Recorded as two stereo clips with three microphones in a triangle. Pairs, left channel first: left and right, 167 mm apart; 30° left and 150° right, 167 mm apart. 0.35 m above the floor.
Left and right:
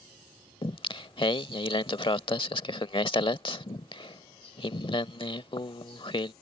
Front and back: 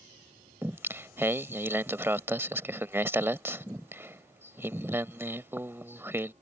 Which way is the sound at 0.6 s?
140° left.